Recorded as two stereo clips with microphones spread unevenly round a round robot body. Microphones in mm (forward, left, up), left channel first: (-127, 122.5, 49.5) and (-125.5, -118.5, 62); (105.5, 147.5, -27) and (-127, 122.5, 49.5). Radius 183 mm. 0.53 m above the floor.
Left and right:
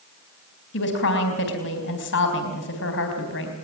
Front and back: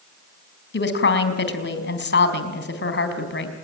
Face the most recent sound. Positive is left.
turn(degrees=40)